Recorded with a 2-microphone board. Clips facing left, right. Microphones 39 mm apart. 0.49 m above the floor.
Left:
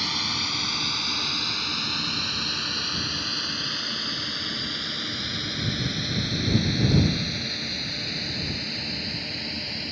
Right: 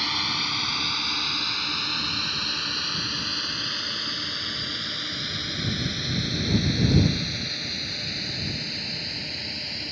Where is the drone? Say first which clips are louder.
Right 1 dB; 10° right (ahead or behind); by 9.9 s 5° left (ahead or behind).